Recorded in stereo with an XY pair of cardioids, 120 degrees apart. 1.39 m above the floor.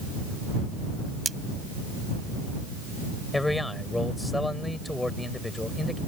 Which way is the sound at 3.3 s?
10° left.